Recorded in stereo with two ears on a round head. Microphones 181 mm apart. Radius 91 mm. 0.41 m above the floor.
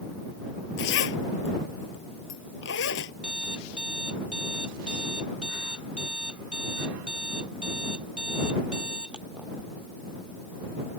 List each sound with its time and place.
0.8 s a zipper: 65° left (ahead or behind)
3.2 s an alarm clock: 5° right (ahead or behind)